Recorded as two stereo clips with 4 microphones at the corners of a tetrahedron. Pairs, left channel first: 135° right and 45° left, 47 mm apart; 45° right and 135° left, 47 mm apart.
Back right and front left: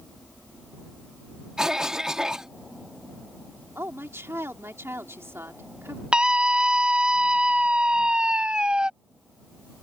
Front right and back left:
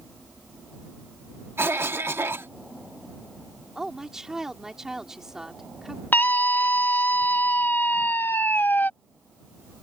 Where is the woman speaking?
60° left.